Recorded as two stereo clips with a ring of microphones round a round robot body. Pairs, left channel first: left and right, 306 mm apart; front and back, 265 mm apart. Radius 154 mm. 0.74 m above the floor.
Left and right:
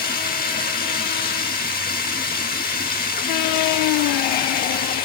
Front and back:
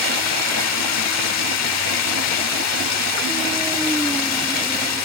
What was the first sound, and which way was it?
Running water, 25° left.